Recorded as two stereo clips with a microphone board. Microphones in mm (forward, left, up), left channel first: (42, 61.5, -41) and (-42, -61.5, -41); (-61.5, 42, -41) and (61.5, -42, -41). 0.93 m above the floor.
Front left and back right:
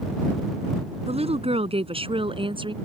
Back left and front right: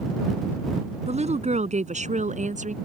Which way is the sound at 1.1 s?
75° right.